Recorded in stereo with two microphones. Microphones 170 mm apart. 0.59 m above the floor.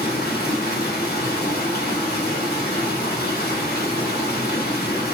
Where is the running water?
70° left (ahead or behind), 0.7 m.